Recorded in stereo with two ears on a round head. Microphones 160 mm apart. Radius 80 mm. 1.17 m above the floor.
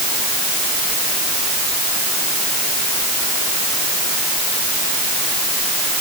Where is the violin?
I don't hear a violin.